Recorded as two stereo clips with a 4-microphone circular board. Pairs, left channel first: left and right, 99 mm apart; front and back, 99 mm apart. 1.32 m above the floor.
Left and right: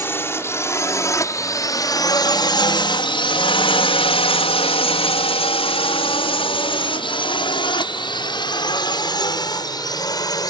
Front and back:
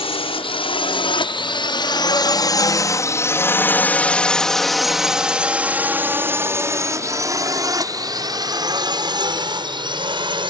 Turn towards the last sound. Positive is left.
turn(degrees=140)